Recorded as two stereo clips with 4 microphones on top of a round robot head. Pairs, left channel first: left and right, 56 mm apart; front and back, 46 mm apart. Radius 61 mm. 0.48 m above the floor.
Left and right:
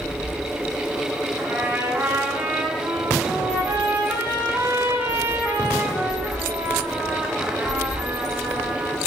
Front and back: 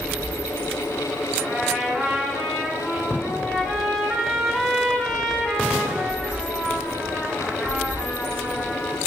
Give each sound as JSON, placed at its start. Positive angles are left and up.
{"t": 1.4, "sound": "a trumpet", "azimuth_deg": -75, "distance_m": 1.1}